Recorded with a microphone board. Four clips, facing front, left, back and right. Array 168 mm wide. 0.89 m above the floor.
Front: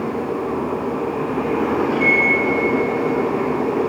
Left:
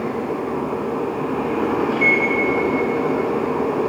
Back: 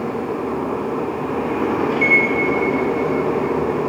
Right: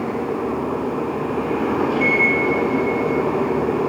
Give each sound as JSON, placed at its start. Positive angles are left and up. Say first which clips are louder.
{"t": 1.9, "sound": "a microwave", "louder": "even, even", "azimuth_deg": 35, "distance_m": 2.5}